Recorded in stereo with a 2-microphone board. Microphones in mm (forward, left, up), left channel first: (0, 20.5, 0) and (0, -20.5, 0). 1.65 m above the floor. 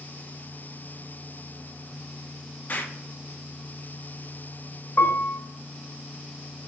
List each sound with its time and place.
2.7 s an explosion: 45° left (ahead or behind), 0.7 m
5.0 s a piano: 80° left, 1.1 m